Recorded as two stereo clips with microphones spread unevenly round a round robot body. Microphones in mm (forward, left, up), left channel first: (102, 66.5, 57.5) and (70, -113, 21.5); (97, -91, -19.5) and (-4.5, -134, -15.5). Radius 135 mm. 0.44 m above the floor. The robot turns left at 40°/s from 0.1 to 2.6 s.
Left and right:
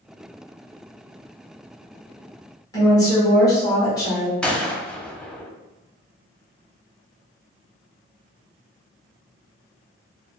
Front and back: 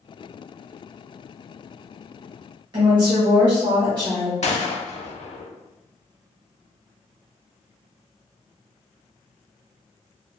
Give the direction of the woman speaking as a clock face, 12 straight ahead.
7 o'clock.